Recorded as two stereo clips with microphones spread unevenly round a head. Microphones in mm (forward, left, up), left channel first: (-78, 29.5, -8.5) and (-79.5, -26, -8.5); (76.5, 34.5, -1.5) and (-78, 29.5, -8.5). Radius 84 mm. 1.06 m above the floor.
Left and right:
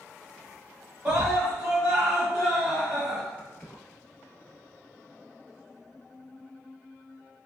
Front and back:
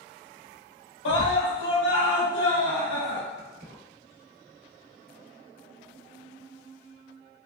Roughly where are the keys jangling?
Behind.